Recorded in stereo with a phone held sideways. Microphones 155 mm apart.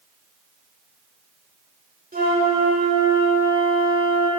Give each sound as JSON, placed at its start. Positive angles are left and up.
{"t": 2.1, "sound": "a flute", "side_deg": -65, "distance_m": 2.0}